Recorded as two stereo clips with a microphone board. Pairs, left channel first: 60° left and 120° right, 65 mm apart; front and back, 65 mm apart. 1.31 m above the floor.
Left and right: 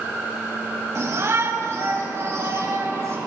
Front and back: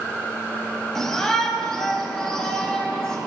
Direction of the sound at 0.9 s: 80° right.